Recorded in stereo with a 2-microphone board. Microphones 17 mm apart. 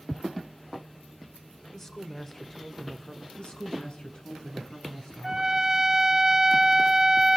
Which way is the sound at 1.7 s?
20° left (ahead or behind).